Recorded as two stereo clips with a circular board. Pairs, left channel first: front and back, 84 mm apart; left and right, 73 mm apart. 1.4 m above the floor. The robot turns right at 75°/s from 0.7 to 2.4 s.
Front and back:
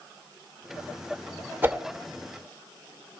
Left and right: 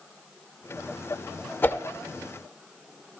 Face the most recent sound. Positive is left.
turn(degrees=-175)